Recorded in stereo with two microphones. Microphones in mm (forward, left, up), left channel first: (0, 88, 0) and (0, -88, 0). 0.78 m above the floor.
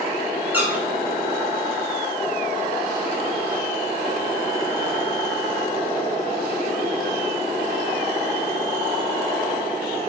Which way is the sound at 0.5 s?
10° right (ahead or behind).